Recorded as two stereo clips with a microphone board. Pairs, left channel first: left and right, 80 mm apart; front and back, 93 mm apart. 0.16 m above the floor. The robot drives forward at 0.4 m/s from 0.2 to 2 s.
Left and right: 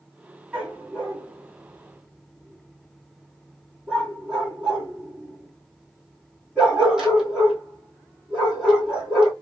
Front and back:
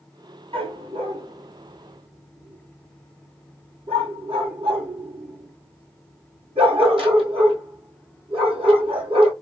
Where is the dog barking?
170° right, 1.5 m; by 9.3 s 175° right, 2 m.